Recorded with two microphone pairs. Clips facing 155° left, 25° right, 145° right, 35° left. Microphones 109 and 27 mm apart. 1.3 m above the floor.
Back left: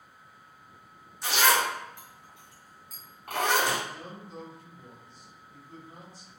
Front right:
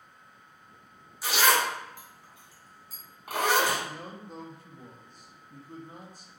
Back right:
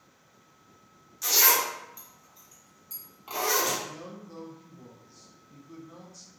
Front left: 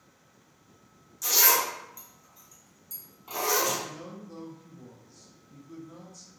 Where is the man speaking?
65° right, 0.7 m.